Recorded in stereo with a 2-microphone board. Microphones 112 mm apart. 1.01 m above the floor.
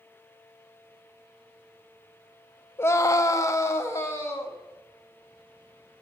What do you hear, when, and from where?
2.8 s a scream: 20° left (ahead or behind), 0.6 m; by 4.6 s 25° left (ahead or behind), 2 m